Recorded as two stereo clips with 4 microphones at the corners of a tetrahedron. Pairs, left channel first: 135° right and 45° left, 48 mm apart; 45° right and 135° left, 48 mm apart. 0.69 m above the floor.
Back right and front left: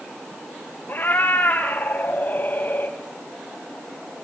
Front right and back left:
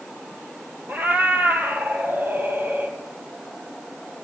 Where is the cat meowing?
Straight behind, 2 m.